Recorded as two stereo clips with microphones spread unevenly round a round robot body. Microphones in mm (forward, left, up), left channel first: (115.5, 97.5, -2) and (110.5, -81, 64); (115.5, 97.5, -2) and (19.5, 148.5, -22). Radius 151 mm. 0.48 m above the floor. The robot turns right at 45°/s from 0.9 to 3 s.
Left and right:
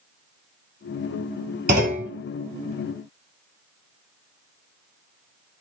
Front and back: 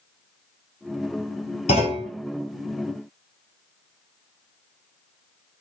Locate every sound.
1.7 s a clunk: 65° right, 1.6 m; by 2.1 s 50° right, 1.6 m